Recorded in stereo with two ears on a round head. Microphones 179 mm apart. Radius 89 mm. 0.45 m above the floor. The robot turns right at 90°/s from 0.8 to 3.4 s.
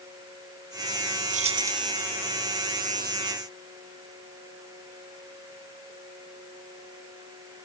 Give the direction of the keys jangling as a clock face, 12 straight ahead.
2 o'clock.